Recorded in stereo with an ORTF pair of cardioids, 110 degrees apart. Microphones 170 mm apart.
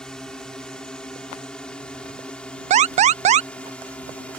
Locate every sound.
0.0 s a drone: 5° left
2.7 s an alarm: 45° right